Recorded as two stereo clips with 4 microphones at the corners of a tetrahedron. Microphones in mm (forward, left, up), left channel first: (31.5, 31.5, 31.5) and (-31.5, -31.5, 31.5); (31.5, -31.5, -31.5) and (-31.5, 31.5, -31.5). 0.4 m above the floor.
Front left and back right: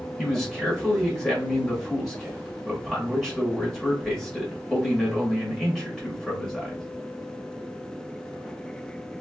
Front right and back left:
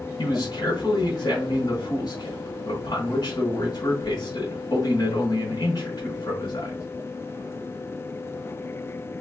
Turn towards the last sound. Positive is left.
turn(degrees=-40)